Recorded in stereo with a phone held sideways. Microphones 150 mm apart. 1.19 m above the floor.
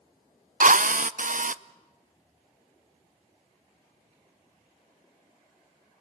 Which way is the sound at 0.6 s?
65° right (ahead or behind).